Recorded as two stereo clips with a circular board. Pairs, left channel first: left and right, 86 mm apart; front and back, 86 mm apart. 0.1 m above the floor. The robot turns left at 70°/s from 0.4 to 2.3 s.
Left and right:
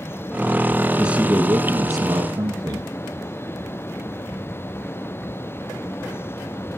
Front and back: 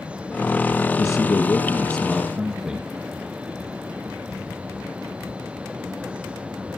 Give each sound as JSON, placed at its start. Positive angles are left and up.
{"t": 1.0, "sound": "a man speaking", "azimuth_deg": -10, "distance_m": 1.5}